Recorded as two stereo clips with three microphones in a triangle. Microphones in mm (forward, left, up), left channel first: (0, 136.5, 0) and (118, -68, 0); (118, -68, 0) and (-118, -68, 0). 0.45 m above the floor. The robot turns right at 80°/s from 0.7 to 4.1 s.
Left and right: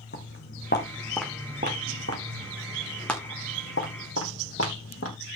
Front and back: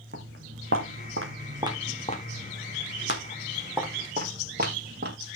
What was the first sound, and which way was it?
Footsteps, 150° left.